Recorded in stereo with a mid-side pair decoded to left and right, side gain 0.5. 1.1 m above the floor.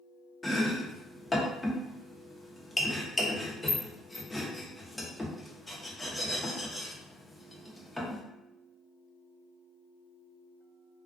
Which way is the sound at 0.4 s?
10° left.